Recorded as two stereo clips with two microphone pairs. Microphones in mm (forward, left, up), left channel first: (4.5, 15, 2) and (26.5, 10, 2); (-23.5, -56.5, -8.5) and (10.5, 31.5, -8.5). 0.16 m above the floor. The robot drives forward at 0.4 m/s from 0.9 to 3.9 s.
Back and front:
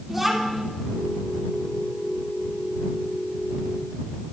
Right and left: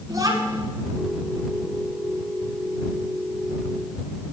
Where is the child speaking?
60° left, 1.3 m.